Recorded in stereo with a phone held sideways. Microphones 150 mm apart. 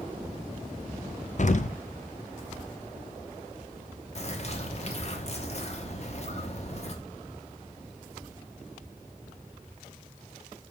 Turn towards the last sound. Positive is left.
turn(degrees=45)  # may be behind; listen again after turning